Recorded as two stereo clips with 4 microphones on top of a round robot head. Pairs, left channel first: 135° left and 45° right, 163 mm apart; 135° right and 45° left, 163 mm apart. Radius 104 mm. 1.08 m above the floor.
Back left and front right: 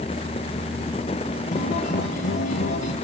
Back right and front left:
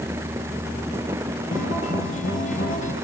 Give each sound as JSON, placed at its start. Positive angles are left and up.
{"t": 1.5, "sound": "a guitar", "azimuth_deg": 180, "distance_m": 8.0}